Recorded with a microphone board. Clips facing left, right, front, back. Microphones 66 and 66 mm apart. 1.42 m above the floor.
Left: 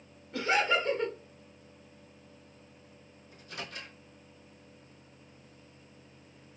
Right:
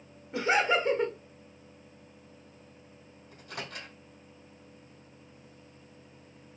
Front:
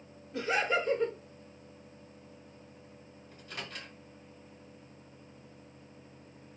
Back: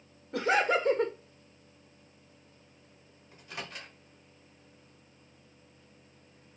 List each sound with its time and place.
0.3 s laughter: 155° right, 0.6 m
3.3 s a microwave: 100° right, 1.9 m